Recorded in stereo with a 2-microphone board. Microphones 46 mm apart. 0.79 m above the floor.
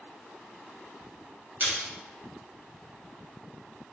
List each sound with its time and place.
1.6 s a splash: 40° right (ahead or behind), 1.5 m